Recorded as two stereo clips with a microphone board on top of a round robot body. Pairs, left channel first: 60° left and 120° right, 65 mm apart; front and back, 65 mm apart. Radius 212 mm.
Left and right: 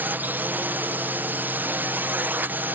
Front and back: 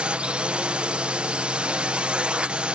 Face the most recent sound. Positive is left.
turn(degrees=-125)